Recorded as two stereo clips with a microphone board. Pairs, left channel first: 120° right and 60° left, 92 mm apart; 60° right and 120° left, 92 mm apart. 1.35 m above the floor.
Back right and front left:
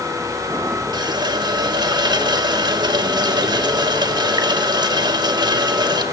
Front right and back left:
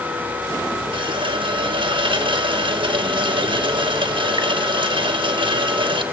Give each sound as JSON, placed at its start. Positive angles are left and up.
{"t": 0.9, "sound": "a running tap", "azimuth_deg": 100, "distance_m": 1.3}